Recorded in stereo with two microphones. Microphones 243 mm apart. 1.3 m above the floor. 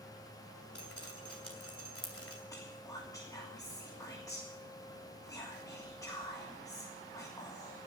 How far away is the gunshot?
No gunshot in this recording.